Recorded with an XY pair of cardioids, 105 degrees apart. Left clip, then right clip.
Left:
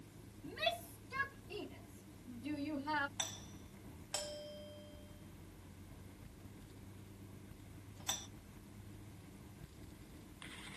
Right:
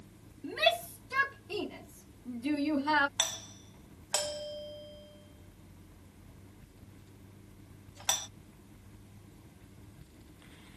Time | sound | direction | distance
0.4 | a shout | 60° right | ?
3.2 | a doorbell | 65° right | ?